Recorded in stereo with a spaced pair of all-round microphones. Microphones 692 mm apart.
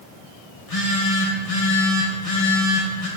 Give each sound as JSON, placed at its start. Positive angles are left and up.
{"t": 0.6, "sound": "a phone buzzing", "side_deg": 55, "distance_m": 1.0}